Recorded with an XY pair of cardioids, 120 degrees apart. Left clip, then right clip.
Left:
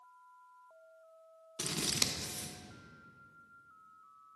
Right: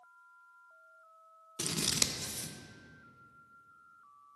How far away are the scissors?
About 0.8 m.